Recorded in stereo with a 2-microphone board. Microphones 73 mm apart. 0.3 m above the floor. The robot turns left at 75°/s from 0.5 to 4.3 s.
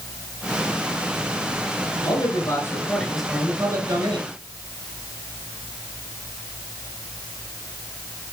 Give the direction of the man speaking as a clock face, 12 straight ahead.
9 o'clock.